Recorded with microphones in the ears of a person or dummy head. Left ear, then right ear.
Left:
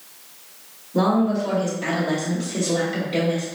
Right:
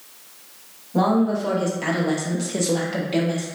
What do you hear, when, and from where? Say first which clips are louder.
0.9 s a woman speaking: even; 25° right (ahead or behind), 1.2 m; by 3.5 s 45° right (ahead or behind), 1.0 m